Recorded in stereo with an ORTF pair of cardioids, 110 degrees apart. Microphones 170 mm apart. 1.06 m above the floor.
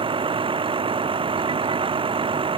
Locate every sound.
0.0 s a vehicle: 30° right